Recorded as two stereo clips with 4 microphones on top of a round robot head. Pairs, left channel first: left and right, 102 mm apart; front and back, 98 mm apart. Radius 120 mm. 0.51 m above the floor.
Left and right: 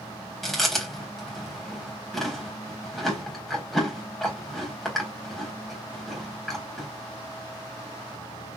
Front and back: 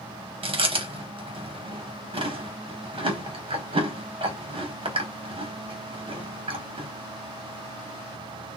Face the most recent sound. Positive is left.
turn(degrees=180)